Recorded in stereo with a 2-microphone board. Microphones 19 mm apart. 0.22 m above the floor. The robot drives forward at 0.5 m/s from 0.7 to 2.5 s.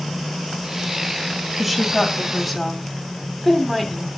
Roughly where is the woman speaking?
Centre.